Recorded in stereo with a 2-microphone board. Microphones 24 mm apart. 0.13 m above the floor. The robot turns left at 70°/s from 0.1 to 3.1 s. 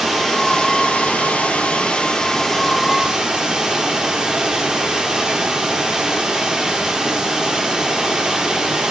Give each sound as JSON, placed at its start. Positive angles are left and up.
{"t": 0.0, "sound": "running water", "azimuth_deg": -175, "distance_m": 3.0}